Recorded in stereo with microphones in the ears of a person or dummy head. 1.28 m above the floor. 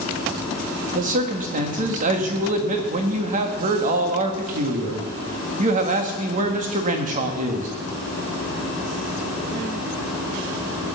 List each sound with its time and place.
0.9 s a man speaking: 45° right (ahead or behind), 1.8 m